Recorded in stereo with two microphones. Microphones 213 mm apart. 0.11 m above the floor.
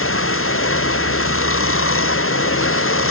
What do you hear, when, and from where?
0.0 s running water: 75° left (ahead or behind)